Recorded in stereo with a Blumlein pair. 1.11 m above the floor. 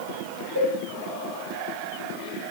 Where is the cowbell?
55° right, 6 m.